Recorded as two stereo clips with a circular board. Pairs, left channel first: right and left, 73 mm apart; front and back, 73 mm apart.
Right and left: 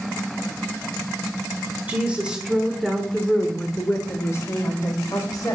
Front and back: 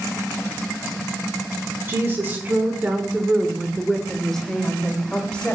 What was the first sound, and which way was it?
A woman speaking, 145° left.